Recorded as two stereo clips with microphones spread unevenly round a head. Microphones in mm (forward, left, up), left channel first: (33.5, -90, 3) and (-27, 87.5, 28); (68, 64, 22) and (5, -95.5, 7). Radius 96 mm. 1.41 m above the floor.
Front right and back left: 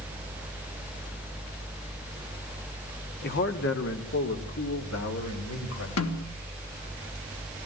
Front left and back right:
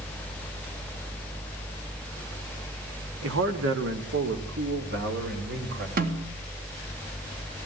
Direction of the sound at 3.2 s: 115° right.